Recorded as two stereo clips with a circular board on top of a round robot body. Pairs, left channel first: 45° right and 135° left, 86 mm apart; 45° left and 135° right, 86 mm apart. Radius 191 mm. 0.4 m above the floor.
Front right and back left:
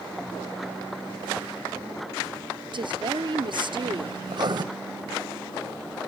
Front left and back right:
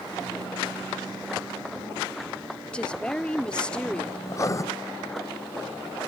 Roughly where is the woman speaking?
Behind left.